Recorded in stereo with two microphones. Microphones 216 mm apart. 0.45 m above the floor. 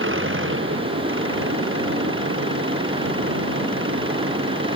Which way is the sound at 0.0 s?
70° right (ahead or behind).